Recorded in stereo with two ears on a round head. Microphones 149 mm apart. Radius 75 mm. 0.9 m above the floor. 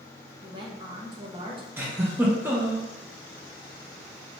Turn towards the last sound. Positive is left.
turn(degrees=-15)  # may be behind; listen again after turning